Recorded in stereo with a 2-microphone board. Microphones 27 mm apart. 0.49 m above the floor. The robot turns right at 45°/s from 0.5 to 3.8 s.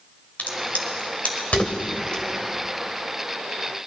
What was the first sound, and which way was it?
A crack, 65° left (ahead or behind).